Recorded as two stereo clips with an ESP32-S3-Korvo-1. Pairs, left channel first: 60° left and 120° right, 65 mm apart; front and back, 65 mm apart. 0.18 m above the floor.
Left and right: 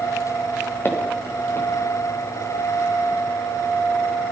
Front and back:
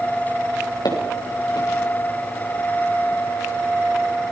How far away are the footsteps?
About 6 m.